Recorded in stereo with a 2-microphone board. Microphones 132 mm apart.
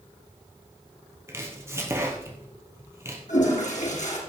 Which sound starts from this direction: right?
Chopping, at 1.3 s.